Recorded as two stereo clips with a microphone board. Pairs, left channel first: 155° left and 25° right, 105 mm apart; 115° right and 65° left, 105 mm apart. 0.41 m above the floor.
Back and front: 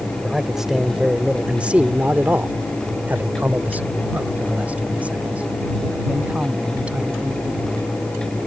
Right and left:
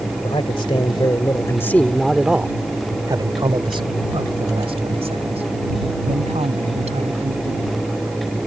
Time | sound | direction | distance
0.2 | a man speaking | 110° right | ?